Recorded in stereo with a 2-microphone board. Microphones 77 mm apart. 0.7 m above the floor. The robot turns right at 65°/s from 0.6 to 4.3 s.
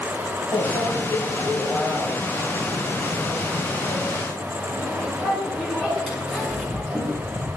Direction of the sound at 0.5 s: 70° left (ahead or behind).